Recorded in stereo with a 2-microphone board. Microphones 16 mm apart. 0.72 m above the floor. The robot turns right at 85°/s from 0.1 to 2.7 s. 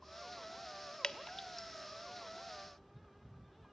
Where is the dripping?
65° left (ahead or behind), 0.9 m; by 1.7 s 20° left (ahead or behind), 0.9 m.